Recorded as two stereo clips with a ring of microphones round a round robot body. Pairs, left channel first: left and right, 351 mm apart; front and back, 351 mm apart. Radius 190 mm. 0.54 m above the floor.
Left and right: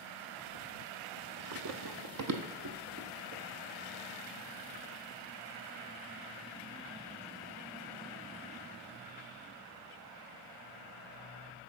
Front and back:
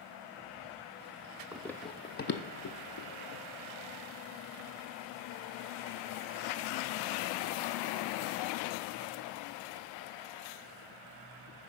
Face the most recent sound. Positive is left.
turn(degrees=-30)